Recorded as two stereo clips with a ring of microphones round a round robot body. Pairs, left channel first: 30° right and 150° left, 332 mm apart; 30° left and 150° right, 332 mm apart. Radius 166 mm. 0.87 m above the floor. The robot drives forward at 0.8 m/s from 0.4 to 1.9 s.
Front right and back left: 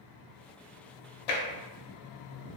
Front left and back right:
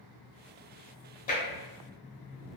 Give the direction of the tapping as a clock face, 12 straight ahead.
1 o'clock.